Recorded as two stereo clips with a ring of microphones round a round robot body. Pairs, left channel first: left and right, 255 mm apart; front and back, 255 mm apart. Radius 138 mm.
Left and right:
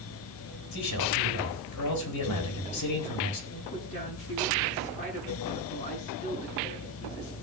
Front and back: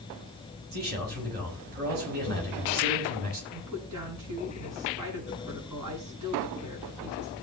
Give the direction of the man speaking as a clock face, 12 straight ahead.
8 o'clock.